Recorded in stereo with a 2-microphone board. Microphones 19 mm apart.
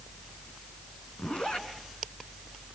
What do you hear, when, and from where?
1.2 s a zipper: 60° left (ahead or behind), 3 m